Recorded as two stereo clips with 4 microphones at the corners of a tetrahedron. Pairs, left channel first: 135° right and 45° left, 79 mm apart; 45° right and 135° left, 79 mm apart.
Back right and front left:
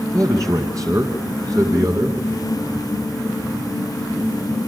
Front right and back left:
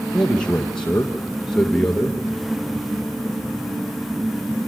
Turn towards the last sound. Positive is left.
turn(degrees=30)